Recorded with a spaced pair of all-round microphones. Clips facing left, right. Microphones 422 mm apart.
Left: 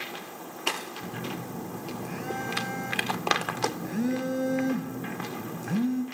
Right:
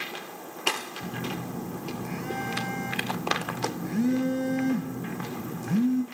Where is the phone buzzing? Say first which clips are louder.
Right 3 dB; 15° right (ahead or behind), 0.5 m.